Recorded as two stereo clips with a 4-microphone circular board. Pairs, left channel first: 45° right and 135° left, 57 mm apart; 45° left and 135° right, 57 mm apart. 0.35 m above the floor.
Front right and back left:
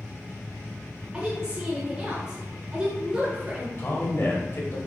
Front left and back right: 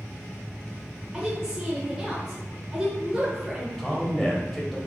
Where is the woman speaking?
Straight behind, 1.0 m.